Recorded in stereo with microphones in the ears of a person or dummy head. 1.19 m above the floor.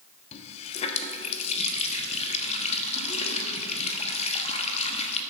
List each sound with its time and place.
0.3 s a running tap: 35° left (ahead or behind), 1.1 m